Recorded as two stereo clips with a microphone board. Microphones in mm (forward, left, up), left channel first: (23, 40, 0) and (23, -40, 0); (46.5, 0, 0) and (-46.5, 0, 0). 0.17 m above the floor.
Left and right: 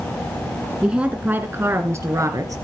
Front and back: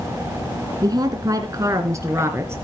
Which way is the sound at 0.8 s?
165° right.